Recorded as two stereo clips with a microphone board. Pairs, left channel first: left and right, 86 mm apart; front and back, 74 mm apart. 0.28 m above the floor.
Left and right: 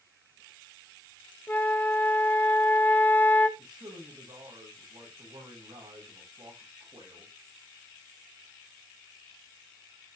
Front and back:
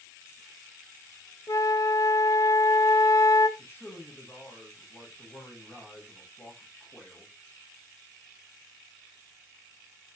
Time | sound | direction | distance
1.5 | a flute | 25° left | 0.7 m
3.6 | a man speaking | 60° right | 10 m